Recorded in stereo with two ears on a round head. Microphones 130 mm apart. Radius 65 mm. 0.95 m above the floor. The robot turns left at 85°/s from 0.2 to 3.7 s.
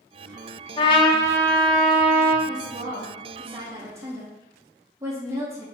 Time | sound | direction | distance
0.8 | a trumpet | 90° left | 0.7 m
2.5 | a woman speaking | 40° right | 0.8 m